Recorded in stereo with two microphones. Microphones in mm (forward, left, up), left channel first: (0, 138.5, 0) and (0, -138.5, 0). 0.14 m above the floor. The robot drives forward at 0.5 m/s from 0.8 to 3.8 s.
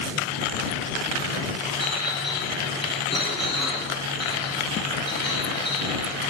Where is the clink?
65° left (ahead or behind), 3 m.